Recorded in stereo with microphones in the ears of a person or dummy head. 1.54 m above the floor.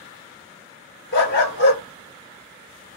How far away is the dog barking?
About 1.9 m.